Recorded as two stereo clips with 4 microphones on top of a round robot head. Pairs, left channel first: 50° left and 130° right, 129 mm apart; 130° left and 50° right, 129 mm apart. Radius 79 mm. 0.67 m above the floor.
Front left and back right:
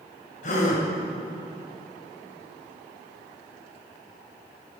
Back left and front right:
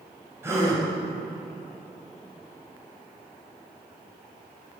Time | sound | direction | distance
0.4 | a gasp | 20° left | 1.9 m